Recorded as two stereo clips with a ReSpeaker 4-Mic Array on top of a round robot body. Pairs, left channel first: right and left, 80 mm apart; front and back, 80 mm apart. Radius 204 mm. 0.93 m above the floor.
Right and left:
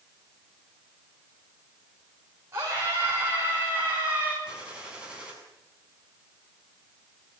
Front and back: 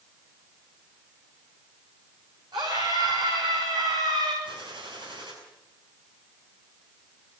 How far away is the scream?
About 6 m.